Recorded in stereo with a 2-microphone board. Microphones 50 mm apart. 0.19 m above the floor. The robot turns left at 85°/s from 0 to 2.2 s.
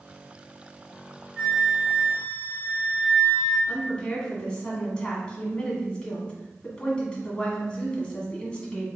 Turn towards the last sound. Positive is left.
turn(degrees=20)  # may be behind; listen again after turning